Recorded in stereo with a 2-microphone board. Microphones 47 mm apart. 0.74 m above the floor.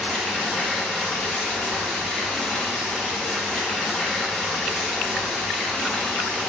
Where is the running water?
15° left (ahead or behind), 0.8 m.